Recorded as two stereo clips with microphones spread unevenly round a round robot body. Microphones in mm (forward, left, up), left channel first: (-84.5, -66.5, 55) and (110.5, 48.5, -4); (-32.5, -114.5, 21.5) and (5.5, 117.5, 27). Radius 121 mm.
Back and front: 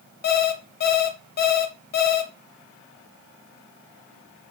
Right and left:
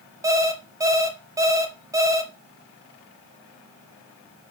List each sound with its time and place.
0.2 s an alarm clock: 160° left, 1.1 m